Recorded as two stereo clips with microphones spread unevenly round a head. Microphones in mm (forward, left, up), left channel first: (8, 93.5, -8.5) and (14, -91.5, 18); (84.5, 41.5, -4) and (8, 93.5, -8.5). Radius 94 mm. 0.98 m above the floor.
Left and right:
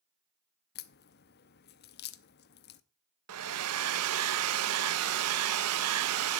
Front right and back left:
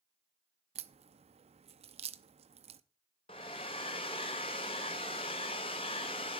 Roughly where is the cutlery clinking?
No cutlery clinking in this recording.